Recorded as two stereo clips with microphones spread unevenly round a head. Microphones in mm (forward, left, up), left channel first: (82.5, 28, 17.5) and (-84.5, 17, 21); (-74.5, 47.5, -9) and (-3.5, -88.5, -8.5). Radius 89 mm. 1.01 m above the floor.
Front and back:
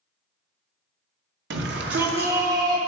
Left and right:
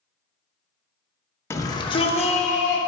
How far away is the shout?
About 0.9 m.